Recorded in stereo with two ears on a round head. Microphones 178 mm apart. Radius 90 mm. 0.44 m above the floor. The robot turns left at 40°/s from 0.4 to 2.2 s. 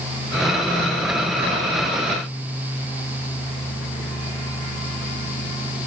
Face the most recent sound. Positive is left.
No sound to turn to.